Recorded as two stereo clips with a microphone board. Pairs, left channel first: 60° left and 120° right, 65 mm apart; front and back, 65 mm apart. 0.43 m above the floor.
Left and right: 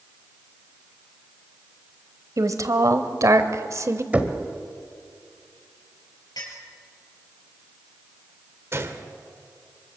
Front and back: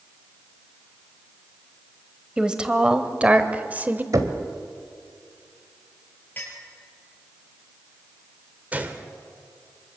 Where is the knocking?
175° left, 1.6 m.